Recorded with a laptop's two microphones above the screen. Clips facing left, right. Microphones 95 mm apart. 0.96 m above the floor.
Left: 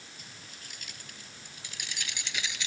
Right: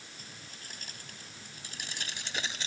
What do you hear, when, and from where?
0.2 s keys jangling: 40° right (ahead or behind)